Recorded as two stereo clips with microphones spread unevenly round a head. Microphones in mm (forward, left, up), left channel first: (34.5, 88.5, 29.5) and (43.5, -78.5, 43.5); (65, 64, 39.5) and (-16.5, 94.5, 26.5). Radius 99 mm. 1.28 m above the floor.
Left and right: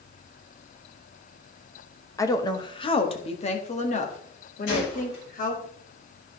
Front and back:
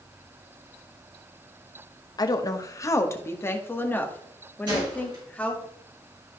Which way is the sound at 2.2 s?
20° left.